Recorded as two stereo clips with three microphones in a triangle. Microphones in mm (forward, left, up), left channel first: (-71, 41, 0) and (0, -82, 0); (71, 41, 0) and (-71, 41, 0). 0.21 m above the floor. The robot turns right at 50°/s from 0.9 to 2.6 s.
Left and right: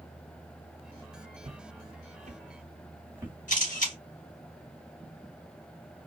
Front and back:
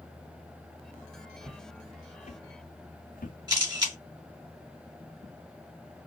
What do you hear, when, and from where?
1.4 s footsteps: 100° right, 1.2 m; by 3.4 s 15° left, 1.4 m
3.5 s a camera shutter: 120° left, 3 m